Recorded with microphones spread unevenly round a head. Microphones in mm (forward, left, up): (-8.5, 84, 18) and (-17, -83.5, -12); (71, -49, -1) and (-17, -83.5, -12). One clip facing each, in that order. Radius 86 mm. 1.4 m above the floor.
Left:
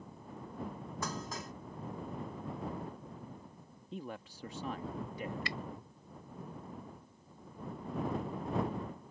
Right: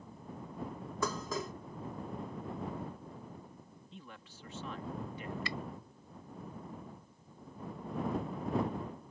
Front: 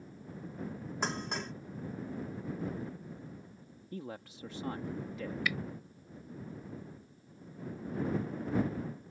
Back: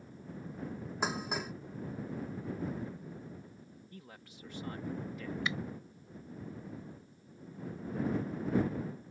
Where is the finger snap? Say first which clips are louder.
Right 1 dB, front 2 dB; 95° right.